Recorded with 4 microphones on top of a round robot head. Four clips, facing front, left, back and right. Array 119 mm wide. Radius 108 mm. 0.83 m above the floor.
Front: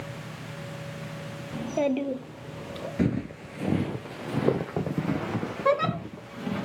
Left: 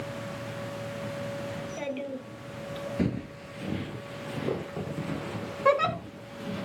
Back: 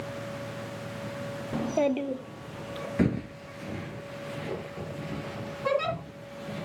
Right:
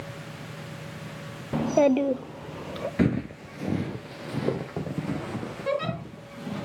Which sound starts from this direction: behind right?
Footsteps, at 3.0 s.